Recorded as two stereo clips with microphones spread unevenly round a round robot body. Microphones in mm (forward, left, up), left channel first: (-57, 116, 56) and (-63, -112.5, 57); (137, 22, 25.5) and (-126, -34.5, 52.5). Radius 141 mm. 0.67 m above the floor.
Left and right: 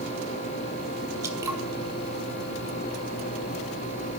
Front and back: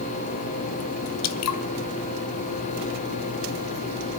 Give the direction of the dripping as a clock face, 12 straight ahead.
12 o'clock.